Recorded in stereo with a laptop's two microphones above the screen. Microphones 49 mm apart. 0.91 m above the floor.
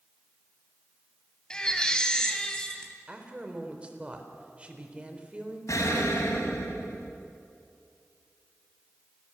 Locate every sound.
1.5 s a baby crying: 15° left (ahead or behind), 3 m
3.1 s a woman speaking: 20° right (ahead or behind), 4 m
5.7 s an explosion: 85° left, 3.5 m